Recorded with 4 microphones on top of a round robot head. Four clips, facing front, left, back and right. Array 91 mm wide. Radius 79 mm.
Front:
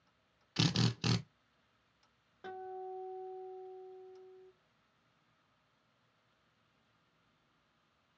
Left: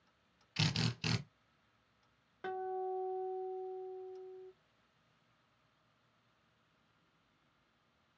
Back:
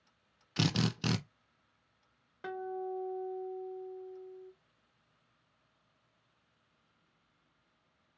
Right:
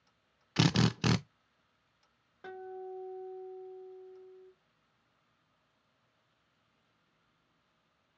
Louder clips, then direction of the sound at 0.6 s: Right 9 dB, back 2 dB; 100° right.